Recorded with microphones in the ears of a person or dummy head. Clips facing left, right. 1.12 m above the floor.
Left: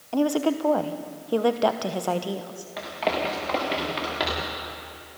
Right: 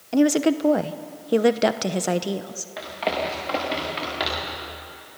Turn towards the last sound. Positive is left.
turn(degrees=-5)  # may be behind; listen again after turning